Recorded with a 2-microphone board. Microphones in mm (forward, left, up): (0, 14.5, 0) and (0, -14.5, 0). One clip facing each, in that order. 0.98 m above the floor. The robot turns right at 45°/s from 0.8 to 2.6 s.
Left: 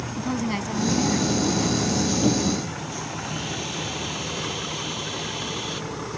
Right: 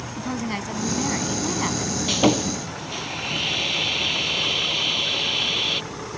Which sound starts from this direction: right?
Sawing, at 2.1 s.